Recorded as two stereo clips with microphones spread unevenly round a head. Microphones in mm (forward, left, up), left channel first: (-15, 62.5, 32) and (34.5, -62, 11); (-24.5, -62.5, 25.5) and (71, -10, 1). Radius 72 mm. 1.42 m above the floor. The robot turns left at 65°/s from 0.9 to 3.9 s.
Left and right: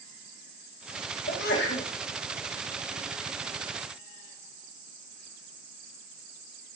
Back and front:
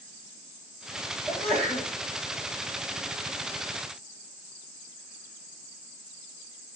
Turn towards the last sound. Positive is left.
turn(degrees=-40)